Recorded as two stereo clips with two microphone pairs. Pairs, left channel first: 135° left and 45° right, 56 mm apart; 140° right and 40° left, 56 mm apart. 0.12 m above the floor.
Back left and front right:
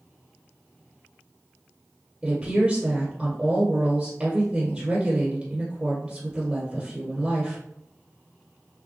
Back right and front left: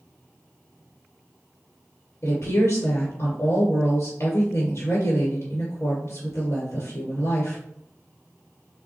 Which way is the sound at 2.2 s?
110° right.